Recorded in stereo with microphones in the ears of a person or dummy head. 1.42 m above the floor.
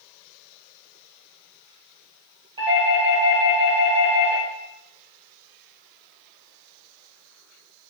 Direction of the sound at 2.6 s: 25° right (ahead or behind).